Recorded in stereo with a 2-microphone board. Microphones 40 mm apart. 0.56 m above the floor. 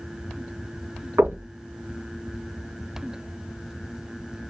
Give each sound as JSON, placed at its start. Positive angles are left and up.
{"t": 1.2, "sound": "knocking", "side_deg": -75, "distance_m": 2.5}